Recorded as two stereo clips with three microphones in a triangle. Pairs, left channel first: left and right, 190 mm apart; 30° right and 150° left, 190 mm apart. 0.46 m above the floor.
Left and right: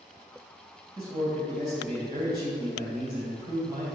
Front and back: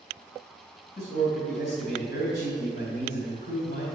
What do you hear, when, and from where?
1.0 s a man speaking: 25° right, 2.5 m